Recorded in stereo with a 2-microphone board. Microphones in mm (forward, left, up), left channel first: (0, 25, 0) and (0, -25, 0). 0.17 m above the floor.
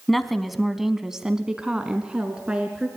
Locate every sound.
0.1 s a woman speaking: 5° left (ahead or behind), 1.2 m; by 2.9 s 20° right (ahead or behind), 2 m